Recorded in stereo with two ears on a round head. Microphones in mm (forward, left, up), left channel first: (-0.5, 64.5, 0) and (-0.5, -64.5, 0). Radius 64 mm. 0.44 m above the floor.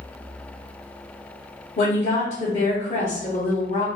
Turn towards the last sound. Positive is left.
turn(degrees=50)  # may be behind; listen again after turning